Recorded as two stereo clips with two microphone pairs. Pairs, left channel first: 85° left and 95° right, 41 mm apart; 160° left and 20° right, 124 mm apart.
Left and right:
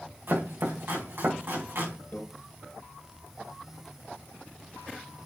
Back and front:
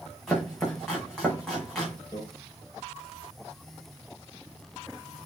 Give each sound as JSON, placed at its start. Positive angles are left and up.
{"t": 0.3, "sound": "chopping", "azimuth_deg": -115, "distance_m": 4.5}
{"t": 2.1, "sound": "a microwave", "azimuth_deg": 105, "distance_m": 2.5}